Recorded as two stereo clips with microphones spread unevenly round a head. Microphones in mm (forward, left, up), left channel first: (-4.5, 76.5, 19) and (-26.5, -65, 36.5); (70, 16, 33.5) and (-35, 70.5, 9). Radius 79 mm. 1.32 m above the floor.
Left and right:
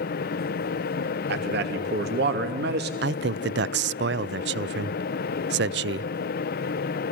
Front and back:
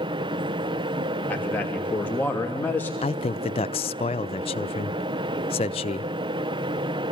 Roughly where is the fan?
Left.